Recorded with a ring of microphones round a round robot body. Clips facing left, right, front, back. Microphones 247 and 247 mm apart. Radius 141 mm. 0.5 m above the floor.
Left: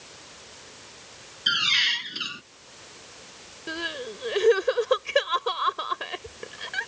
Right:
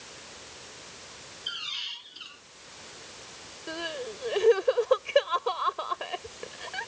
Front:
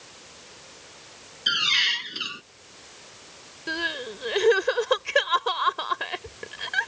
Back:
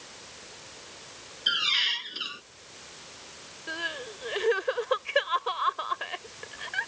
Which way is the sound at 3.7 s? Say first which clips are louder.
Left 1 dB, front 7 dB; 20° left.